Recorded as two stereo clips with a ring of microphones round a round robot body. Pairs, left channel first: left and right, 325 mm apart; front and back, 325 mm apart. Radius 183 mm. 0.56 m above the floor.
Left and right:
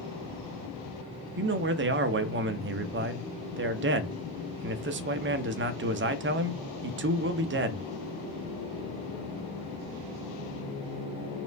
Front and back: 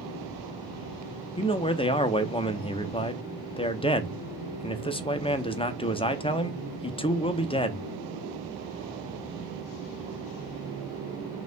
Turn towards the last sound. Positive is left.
turn(degrees=-65)